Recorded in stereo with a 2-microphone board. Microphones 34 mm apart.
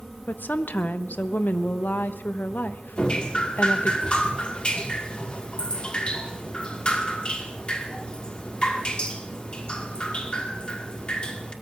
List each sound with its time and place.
0.3 s a woman speaking: 75° left (ahead or behind), 0.8 m
3.0 s dripping: 35° left (ahead or behind), 1.8 m